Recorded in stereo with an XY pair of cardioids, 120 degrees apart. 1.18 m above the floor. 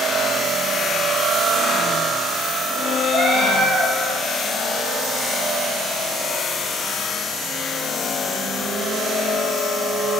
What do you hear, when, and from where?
3.1 s a cat meowing: 65° right, 3 m